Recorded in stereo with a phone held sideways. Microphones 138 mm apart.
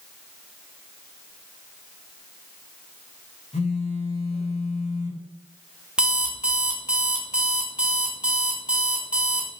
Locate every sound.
3.5 s a phone buzzing: 55° left (ahead or behind), 0.8 m
6.0 s an alarm clock: 10° right (ahead or behind), 0.7 m